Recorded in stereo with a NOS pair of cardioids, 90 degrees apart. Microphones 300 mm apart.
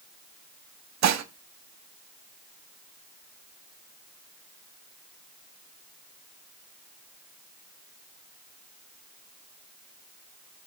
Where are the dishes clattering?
65° right, 1.5 m.